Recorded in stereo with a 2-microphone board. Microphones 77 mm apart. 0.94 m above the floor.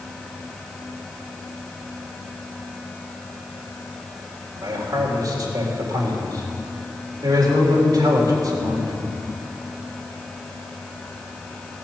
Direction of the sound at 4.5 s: 55° right (ahead or behind).